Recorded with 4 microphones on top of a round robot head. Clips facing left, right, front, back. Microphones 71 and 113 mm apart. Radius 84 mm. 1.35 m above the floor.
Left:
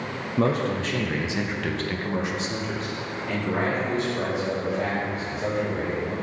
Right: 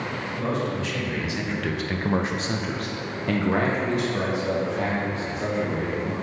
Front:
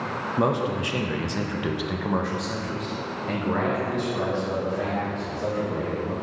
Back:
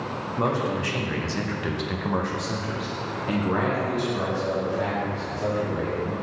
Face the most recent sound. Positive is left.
turn(degrees=-105)